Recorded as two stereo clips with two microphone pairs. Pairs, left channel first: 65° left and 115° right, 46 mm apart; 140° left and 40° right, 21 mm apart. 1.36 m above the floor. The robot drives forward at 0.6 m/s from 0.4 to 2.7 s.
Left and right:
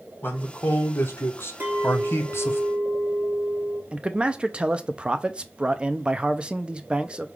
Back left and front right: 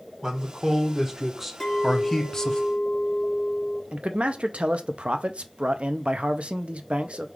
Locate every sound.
0.2 s a man speaking: 25° left, 1.5 m; by 2.6 s 90° left, 0.7 m
1.6 s a clink: 165° right, 2.5 m; by 3.8 s 170° right, 3 m
3.9 s a man speaking: 50° right, 0.5 m